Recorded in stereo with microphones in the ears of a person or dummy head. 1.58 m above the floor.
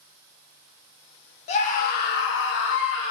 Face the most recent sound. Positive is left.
turn(degrees=70)  # may be behind; listen again after turning